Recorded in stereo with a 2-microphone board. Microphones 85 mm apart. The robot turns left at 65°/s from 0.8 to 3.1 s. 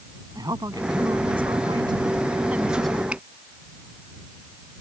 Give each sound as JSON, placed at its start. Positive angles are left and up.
{"t": 0.3, "sound": "a woman speaking", "azimuth_deg": -50}
{"t": 3.1, "sound": "a finger snap", "side_deg": -15}